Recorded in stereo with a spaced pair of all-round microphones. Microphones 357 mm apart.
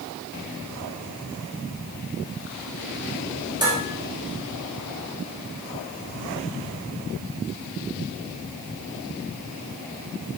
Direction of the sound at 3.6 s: 10° right (ahead or behind).